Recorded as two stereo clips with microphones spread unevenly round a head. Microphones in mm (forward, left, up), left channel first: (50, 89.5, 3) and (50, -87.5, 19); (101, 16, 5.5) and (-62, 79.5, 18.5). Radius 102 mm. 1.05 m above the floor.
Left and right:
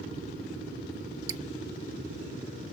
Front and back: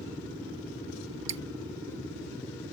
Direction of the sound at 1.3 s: 165° right.